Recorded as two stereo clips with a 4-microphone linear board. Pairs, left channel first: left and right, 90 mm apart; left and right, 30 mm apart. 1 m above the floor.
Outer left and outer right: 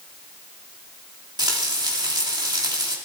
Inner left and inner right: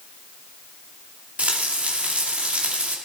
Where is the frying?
50° right (ahead or behind), 2.5 m.